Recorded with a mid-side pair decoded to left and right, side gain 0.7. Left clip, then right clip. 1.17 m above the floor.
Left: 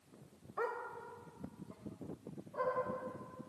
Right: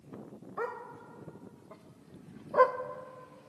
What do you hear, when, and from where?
0.6 s a dog barking: 15° right, 2 m; by 2.8 s 65° right, 1.8 m